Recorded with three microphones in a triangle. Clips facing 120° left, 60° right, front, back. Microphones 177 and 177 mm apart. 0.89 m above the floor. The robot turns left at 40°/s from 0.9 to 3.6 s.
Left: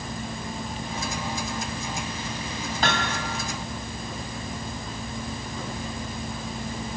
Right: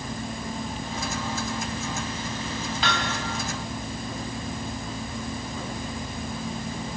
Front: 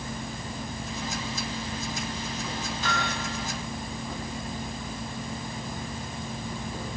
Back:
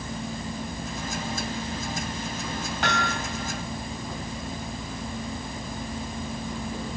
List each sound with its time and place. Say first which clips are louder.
2.8 s hammering: left 3 dB, back 4 dB; 165° left, 4.5 m; by 3.2 s 150° left, 4.5 m